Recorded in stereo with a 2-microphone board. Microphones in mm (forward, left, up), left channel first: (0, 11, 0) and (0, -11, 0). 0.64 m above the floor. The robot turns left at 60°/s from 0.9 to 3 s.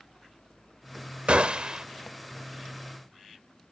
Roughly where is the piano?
I don't hear a piano.